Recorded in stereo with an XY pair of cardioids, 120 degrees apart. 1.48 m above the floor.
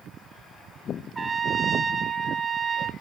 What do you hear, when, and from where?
1.1 s a trumpet: 10° right, 1.2 m